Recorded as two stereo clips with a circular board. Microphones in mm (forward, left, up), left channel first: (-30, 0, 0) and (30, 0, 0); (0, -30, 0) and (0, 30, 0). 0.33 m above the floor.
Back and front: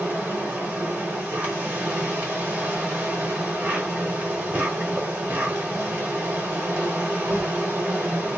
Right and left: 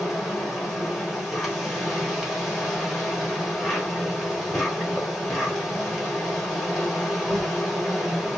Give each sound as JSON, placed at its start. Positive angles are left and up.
{"t": 0.0, "sound": "an insect", "azimuth_deg": 10, "distance_m": 1.0}